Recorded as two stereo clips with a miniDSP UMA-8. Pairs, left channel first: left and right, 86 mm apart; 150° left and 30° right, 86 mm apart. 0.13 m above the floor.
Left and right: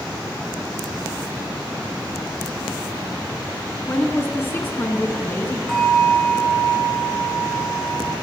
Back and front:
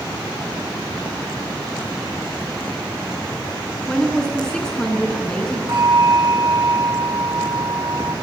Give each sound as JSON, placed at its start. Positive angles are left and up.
{"t": 3.9, "sound": "a woman speaking", "azimuth_deg": 85, "distance_m": 1.1}
{"t": 5.7, "sound": "a bell", "azimuth_deg": 5, "distance_m": 2.5}